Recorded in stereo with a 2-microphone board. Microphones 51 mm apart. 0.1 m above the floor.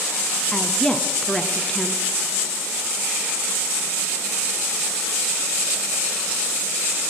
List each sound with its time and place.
0.5 s a woman speaking: 10° left (ahead or behind), 1.1 m